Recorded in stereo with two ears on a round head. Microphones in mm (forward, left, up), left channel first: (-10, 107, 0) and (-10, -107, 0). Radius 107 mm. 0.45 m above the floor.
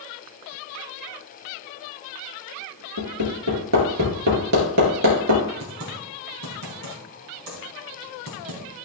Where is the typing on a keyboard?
75° right (ahead or behind), 3 m.